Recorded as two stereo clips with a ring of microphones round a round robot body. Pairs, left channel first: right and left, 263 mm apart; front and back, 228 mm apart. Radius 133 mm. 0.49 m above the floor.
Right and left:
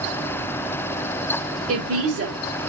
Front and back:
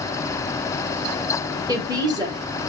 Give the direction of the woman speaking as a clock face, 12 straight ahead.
8 o'clock.